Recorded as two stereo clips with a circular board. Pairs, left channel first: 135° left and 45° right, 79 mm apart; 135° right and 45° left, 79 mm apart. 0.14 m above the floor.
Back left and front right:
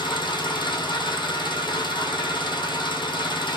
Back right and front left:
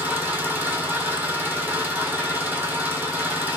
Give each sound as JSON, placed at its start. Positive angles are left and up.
{"t": 0.0, "sound": "an engine running", "azimuth_deg": 115, "distance_m": 1.1}